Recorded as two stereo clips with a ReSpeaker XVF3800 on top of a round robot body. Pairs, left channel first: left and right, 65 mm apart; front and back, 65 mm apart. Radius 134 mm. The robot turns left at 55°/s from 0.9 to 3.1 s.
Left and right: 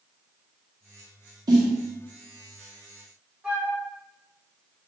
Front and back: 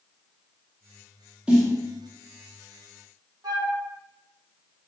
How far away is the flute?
About 0.9 m.